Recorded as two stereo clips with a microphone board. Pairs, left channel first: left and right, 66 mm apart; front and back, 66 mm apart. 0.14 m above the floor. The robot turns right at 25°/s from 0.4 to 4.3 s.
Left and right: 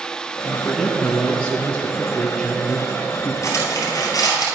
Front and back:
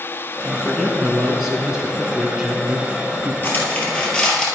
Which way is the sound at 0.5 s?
85° left.